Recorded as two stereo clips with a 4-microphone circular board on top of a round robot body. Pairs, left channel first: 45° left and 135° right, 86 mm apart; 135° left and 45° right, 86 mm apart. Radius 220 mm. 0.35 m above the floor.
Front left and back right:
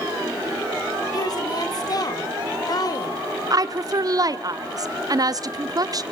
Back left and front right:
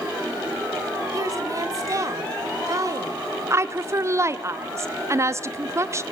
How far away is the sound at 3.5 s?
About 1.5 m.